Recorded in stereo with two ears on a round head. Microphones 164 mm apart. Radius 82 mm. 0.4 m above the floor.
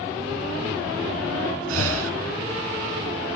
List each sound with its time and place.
1.7 s breathing: 80° right